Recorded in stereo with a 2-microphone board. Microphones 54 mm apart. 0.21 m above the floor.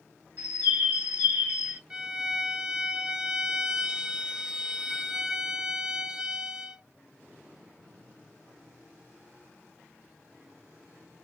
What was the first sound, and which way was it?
A bird, 35° right (ahead or behind).